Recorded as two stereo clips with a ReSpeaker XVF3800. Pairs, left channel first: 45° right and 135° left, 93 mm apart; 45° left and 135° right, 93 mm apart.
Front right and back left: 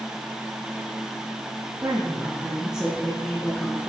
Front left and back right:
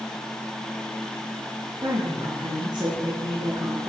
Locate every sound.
1.8 s a woman speaking: 165° right, 2.5 m; by 3.9 s 100° right, 1.7 m